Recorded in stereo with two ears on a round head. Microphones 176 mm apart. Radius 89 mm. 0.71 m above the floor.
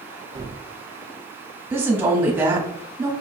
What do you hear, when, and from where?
0.3 s a gunshot: 20° right (ahead or behind), 1.0 m
1.7 s a woman speaking: 10° right (ahead or behind), 1.3 m